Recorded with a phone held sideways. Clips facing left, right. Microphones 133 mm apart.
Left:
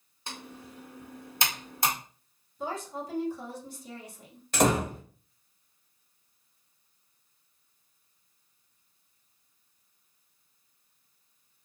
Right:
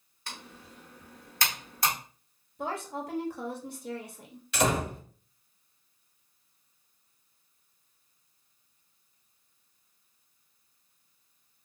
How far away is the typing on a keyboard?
About 1.0 m.